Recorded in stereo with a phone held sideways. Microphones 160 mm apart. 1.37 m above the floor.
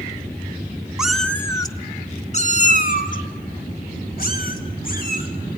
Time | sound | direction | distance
1.0 | a cat meowing | 5° right (ahead or behind) | 1.0 m